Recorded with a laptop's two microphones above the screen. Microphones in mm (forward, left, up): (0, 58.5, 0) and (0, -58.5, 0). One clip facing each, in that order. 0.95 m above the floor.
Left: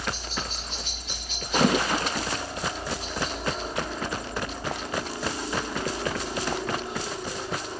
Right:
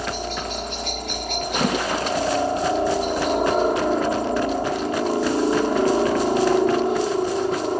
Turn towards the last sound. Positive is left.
turn(degrees=-55)  # may be behind; listen again after turning